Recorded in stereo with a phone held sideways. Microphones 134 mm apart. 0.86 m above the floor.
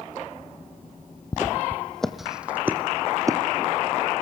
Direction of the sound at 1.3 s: 25° left (ahead or behind).